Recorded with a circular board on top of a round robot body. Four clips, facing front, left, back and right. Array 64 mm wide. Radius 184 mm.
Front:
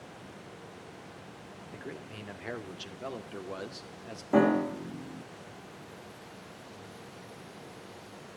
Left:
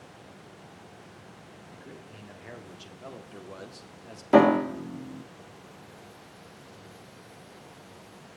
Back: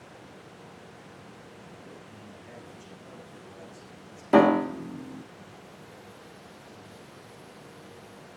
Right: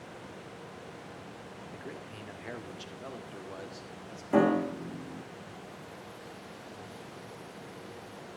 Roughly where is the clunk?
No clunk in this recording.